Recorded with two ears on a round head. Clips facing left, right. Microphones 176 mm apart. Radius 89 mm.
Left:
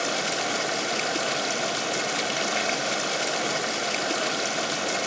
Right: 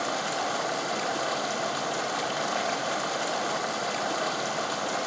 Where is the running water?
30° left (ahead or behind), 1.8 m.